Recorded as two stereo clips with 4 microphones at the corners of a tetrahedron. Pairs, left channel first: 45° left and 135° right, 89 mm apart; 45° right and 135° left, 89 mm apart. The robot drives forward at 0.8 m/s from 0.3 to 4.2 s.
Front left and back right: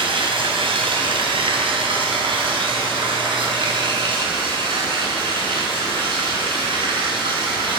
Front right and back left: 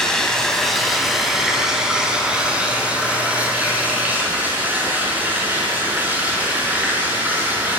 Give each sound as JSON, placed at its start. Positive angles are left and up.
{"t": 0.0, "sound": "running water", "azimuth_deg": -130, "distance_m": 3.0}